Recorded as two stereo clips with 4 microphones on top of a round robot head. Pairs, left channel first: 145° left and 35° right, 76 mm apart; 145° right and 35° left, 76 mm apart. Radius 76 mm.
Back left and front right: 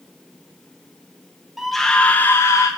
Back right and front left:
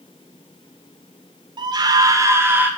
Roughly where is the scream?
Ahead left.